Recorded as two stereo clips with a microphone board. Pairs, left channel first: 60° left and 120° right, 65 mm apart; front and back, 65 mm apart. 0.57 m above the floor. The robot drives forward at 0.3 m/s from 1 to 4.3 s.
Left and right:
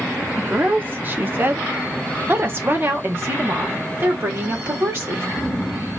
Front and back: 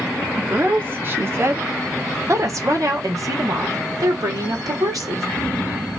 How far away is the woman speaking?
About 0.9 m.